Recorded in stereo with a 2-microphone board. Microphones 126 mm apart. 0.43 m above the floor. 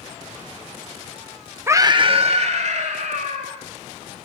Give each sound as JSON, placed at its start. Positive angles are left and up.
{"t": 1.7, "sound": "a scream", "side_deg": -15, "distance_m": 0.8}